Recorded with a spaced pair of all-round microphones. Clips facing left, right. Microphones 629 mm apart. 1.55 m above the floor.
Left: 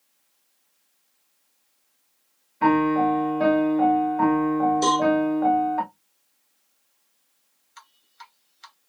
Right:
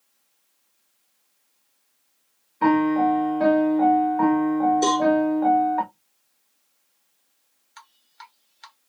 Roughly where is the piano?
Centre.